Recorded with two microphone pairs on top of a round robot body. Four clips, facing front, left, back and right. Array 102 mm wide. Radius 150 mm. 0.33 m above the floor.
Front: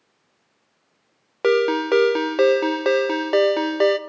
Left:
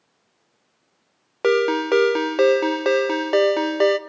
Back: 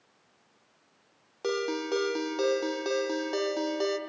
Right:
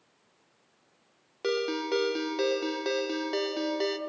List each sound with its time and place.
1.4 s a ringtone: 60° left, 0.8 m